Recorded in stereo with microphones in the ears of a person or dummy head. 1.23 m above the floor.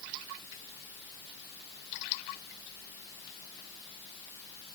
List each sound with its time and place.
Only background noise.